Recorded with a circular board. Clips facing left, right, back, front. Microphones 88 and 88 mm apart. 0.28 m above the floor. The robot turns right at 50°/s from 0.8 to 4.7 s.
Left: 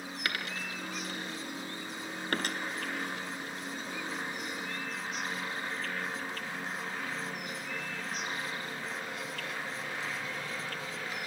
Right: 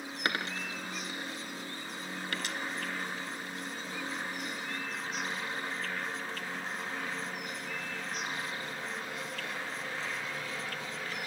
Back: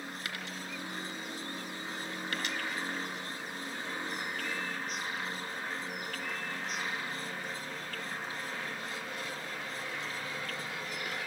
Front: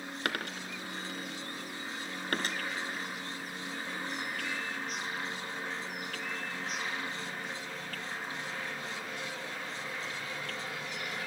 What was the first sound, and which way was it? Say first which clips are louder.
A dropped coin: right 3 dB, front 4 dB; 30° right.